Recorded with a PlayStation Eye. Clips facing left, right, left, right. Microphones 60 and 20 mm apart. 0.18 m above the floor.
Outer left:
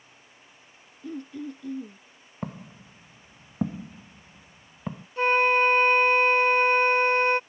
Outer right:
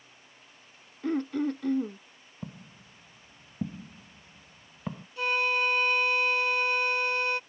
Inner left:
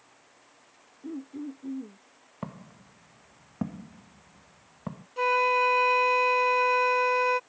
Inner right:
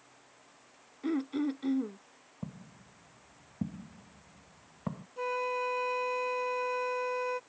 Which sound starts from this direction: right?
Throat clearing, at 1.0 s.